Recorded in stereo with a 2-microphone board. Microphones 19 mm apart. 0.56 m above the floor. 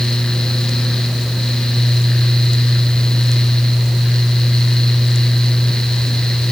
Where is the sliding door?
I don't hear a sliding door.